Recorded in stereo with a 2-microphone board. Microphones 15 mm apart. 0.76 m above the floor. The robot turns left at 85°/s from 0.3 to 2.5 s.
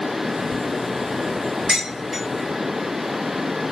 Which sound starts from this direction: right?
Dishes clattering, at 1.7 s.